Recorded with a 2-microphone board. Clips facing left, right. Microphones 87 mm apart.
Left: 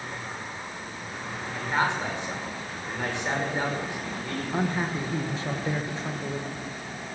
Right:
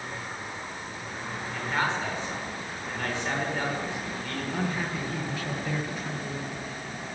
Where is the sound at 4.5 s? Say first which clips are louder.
Left 4 dB; 30° left (ahead or behind), 1.6 m.